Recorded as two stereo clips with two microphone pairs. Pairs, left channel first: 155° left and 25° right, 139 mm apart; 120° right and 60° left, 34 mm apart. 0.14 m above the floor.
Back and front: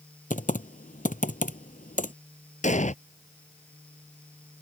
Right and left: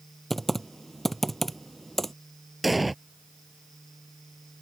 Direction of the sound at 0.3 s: 155° left.